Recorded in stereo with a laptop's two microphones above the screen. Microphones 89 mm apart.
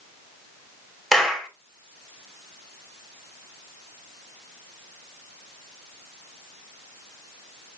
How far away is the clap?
About 3 m.